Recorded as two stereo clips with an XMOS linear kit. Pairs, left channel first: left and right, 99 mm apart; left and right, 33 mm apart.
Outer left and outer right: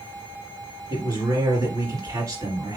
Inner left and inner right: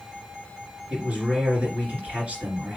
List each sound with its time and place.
0.9 s a man speaking: 40° right (ahead or behind), 2.5 m